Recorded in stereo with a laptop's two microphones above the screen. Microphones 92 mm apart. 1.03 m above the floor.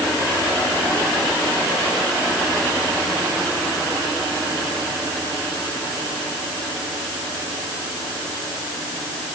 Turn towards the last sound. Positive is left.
No sound to turn to.